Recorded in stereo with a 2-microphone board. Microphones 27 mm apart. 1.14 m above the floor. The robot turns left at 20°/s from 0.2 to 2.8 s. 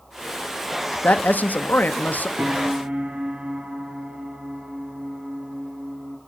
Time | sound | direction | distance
1.0 | a man speaking | 80° left | 0.5 m
2.4 | a piano | 70° right (ahead or behind) | 1.2 m